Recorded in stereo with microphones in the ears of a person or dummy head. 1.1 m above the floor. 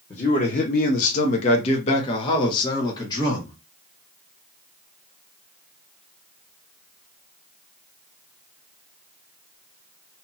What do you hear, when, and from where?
0.1 s a man speaking: 25° left (ahead or behind), 0.8 m; by 3.6 s 20° left (ahead or behind), 1.6 m